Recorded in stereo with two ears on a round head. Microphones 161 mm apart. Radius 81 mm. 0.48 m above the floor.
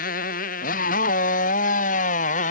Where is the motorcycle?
50° left (ahead or behind); by 2.5 s 45° left (ahead or behind).